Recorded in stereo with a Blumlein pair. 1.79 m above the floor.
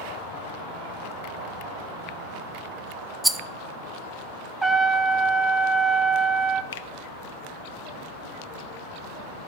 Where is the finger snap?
60° left, 0.7 m.